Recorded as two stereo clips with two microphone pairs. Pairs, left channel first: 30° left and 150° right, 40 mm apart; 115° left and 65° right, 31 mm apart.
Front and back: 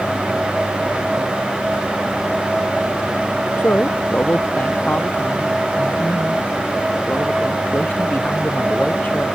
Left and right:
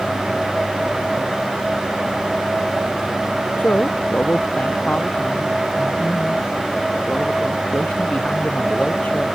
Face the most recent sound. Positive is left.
turn(degrees=75)